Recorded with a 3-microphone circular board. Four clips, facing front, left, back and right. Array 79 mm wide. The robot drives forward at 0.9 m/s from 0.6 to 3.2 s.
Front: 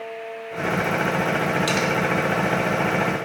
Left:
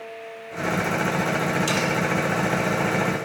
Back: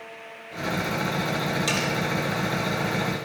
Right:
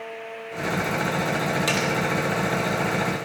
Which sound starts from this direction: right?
Cutlery clinking, at 1.7 s.